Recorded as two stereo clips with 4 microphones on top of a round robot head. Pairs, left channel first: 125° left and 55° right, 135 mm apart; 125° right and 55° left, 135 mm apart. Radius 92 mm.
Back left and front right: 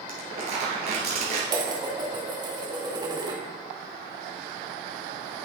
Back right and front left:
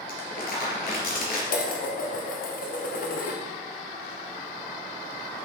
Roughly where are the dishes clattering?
Behind right.